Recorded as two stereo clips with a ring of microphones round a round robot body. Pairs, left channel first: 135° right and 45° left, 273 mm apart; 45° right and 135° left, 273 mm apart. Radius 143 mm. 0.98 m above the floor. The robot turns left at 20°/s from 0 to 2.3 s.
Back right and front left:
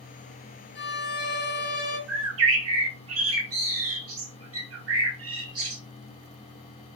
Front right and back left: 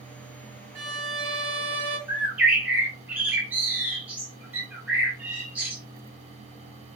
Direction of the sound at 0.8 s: Straight behind.